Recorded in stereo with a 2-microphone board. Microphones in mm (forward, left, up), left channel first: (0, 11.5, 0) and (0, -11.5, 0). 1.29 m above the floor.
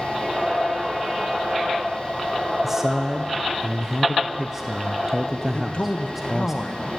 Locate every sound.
2.6 s a man speaking: 15° right (ahead or behind), 0.5 m
5.5 s a man speaking: 60° left (ahead or behind), 1.1 m